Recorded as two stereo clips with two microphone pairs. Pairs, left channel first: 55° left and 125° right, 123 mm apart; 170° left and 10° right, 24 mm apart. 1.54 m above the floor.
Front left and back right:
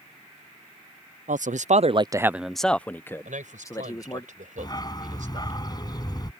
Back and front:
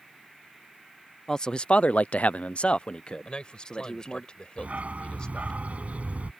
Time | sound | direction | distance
1.3 | a man speaking | 120° right | ?
3.2 | a man speaking | 135° right | ?
4.6 | a dog barking | 5° right | ?